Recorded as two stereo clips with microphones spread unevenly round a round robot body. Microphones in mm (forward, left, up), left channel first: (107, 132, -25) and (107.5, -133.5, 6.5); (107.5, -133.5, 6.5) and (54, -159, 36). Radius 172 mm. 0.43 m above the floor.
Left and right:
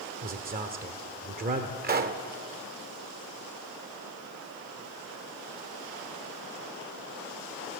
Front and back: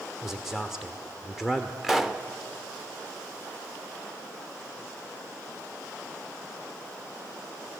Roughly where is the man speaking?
Ahead right.